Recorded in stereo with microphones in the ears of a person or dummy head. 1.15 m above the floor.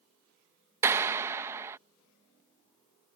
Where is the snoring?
I don't hear snoring.